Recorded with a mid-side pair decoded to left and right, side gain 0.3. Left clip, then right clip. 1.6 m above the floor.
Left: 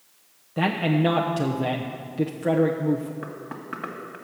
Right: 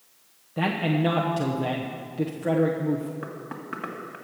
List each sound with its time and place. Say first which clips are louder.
0.6 s a man speaking: left 2 dB; 25° left, 1.0 m
3.2 s knocking: even; straight ahead, 2 m